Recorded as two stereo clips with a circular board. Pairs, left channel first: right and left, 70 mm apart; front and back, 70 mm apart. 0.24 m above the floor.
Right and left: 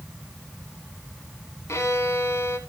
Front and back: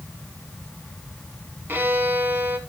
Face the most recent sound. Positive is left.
turn(degrees=-125)